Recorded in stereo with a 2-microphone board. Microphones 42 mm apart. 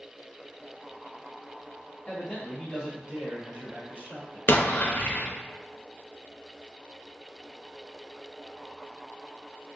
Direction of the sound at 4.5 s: 50° left (ahead or behind).